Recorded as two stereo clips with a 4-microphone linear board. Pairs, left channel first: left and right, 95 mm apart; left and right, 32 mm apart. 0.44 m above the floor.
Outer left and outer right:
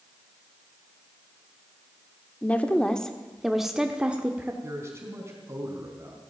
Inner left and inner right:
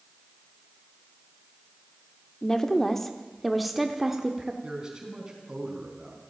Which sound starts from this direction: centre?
A woman speaking, at 2.4 s.